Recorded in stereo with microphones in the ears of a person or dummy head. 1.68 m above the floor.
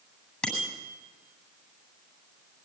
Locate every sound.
0.4 s a bicycle bell: 5° left (ahead or behind), 8.5 m